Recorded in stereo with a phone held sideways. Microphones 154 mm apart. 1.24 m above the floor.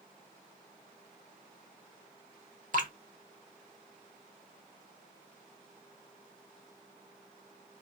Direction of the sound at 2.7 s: 60° right (ahead or behind).